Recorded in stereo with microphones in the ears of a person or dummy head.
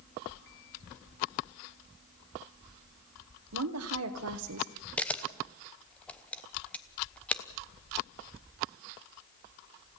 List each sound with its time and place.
3.5 s a woman speaking: 90° right, 1.4 m
5.0 s a camera shutter: 5° left (ahead or behind), 1.0 m